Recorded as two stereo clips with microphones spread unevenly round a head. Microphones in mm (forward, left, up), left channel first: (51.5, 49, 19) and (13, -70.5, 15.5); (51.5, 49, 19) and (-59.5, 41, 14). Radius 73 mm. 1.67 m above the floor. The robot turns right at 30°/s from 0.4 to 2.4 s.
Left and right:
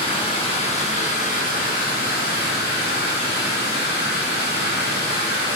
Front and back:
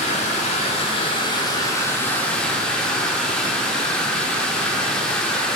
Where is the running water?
25° left, 1.1 m; by 5.6 s 85° left, 1.1 m.